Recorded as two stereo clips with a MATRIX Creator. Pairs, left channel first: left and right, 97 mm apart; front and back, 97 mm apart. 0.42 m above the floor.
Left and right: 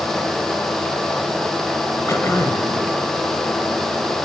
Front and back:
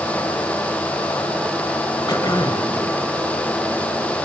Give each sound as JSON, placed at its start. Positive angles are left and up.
{"t": 2.1, "sound": "throat clearing", "azimuth_deg": 35, "distance_m": 1.4}